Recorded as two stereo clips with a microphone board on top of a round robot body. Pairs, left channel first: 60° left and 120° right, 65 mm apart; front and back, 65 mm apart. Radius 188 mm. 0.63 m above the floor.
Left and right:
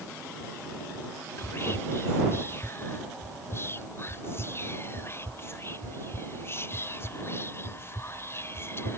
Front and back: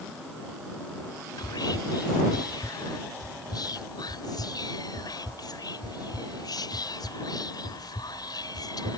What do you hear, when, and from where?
1.4 s whispering: 10° left